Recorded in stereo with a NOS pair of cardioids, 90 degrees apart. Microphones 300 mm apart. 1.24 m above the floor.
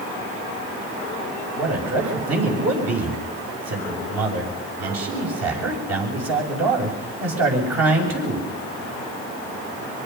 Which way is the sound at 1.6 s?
60° right.